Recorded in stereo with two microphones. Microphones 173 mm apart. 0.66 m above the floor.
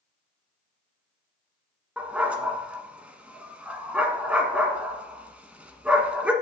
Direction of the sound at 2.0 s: 5° right (ahead or behind).